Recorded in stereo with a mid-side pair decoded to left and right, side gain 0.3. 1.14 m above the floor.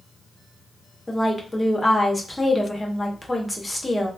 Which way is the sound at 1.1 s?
20° left.